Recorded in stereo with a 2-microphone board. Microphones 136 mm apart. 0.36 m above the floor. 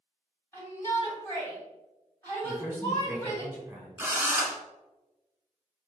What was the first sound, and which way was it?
A shout, 20° left (ahead or behind).